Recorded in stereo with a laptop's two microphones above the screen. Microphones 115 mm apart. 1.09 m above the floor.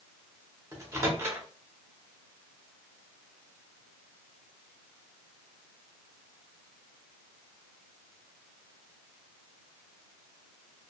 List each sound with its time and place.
0.7 s a microwave: 25° right (ahead or behind), 0.7 m